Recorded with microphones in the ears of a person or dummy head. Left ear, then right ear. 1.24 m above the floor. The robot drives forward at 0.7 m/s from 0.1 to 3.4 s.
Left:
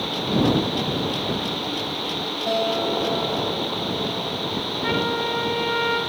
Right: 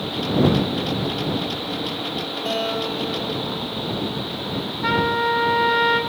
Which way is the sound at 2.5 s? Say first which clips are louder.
Left 2 dB; 50° right (ahead or behind).